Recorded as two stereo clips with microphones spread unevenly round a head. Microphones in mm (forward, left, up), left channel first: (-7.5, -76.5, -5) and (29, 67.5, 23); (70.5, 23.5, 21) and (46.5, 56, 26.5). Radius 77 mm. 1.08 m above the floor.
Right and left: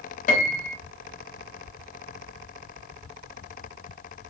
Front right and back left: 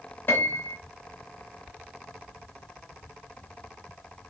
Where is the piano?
90° right, 1.1 m.